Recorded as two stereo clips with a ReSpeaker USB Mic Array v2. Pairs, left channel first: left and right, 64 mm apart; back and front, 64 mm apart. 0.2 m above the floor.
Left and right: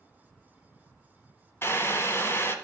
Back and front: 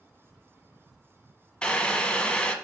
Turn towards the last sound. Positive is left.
turn(degrees=110)